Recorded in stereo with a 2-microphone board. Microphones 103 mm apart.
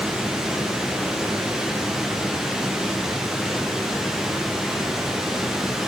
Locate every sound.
0.0 s running water: 5° right (ahead or behind), 1.8 m